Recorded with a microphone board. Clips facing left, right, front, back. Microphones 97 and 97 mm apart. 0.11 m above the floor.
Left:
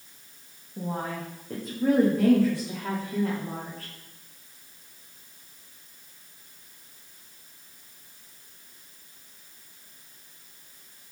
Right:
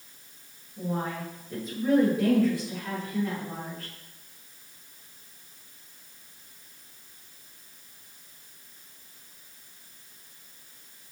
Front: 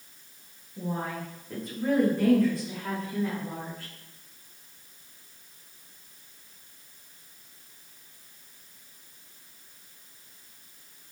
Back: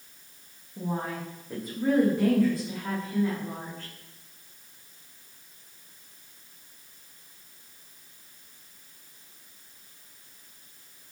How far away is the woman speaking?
About 8.5 m.